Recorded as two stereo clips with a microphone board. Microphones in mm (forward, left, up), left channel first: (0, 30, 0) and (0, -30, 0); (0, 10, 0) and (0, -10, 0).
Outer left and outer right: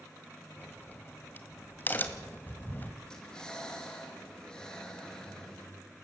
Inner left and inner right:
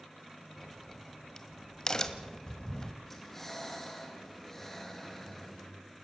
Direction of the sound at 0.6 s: 30° left (ahead or behind).